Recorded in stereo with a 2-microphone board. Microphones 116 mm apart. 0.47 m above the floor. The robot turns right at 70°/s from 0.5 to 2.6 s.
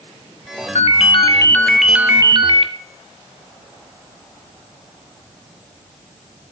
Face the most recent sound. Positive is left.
turn(degrees=-125)